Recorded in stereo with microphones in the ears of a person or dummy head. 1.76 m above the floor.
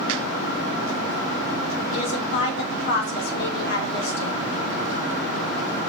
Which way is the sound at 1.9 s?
70° left (ahead or behind).